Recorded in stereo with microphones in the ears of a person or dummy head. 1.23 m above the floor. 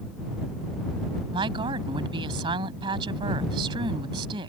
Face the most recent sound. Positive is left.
turn(degrees=-25)  # may be behind; listen again after turning